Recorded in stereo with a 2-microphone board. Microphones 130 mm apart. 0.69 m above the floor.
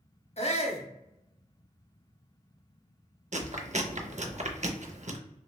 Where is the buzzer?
No buzzer in this recording.